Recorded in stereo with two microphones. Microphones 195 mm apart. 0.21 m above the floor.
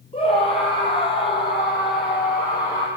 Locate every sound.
0.1 s a scream: 30° left (ahead or behind), 7 m; by 2.9 s 20° left (ahead or behind), 7 m